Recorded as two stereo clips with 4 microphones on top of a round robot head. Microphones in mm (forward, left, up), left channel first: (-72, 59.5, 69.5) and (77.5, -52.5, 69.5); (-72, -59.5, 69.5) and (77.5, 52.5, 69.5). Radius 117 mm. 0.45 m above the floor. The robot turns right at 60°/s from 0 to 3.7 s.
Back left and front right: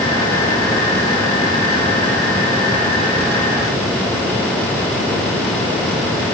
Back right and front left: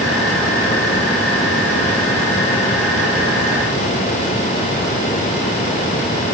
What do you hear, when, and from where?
Only background noise.